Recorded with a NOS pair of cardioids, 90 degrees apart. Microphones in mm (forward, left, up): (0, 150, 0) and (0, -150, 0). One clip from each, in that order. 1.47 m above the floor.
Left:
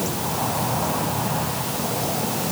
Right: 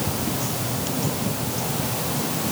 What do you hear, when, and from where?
Only background noise.